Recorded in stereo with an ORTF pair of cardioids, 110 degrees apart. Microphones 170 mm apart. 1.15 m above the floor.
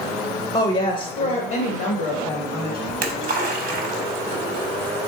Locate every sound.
0.5 s a woman speaking: 25° left, 0.6 m; by 2.8 s 80° left, 1.6 m
2.9 s a splash: 60° right, 0.9 m